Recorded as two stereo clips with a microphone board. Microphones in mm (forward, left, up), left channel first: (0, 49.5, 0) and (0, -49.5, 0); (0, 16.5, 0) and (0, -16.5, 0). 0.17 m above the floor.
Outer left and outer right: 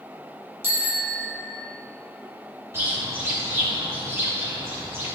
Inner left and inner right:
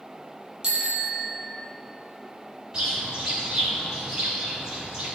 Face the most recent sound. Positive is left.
turn(degrees=-20)  # may be behind; listen again after turning